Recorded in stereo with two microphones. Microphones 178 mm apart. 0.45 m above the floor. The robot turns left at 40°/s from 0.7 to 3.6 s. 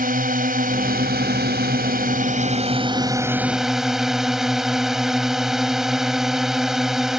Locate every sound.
0.0 s a drone: 60° right; by 7.2 s straight behind